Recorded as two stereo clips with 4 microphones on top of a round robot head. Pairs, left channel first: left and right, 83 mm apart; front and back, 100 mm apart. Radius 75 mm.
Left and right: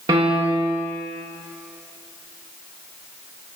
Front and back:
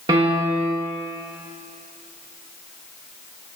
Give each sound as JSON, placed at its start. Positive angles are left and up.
{"t": 0.1, "sound": "a piano", "azimuth_deg": -130, "distance_m": 1.3}